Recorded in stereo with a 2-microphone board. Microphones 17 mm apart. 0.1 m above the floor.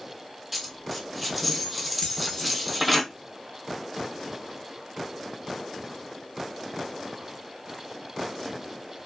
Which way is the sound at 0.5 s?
Centre (ahead or behind).